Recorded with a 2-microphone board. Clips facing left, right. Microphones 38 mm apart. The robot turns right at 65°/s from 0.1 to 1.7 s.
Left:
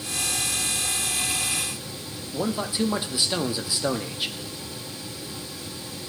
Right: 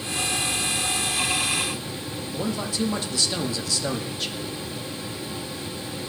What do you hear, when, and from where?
2.3 s a man speaking: 20° left (ahead or behind), 0.6 m